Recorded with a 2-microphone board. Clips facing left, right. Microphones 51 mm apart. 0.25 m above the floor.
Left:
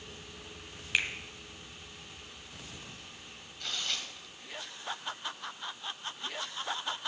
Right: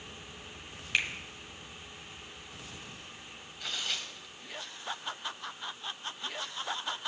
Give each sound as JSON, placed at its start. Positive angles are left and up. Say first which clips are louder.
{"t": 0.9, "sound": "a finger snap", "louder": "even", "side_deg": 5, "distance_m": 1.2}
{"t": 3.6, "sound": "tearing paper", "louder": "even", "side_deg": -5, "distance_m": 1.3}